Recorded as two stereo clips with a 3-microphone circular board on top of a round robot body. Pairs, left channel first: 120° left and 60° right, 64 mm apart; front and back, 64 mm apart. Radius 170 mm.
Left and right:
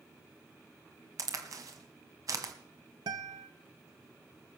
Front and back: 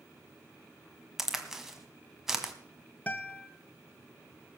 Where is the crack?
95° right, 1.4 m.